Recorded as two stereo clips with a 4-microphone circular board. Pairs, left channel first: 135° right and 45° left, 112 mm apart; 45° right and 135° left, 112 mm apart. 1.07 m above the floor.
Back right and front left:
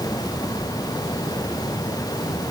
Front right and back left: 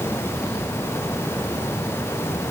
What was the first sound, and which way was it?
Only background noise.